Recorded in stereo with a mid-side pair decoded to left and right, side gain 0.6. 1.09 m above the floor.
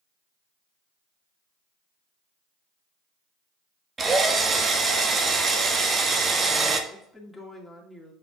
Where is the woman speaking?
5° left, 2 m.